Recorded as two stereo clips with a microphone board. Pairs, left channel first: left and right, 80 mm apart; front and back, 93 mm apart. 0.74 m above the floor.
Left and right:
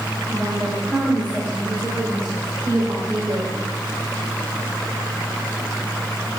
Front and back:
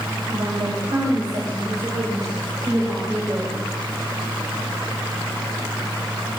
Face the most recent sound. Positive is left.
turn(degrees=-125)